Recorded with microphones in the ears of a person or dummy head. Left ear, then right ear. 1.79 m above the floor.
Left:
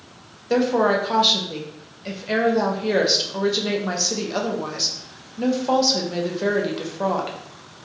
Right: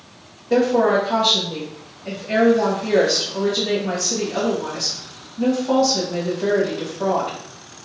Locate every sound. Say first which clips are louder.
0.5 s a woman speaking: right 2 dB; 70° left (ahead or behind), 0.7 m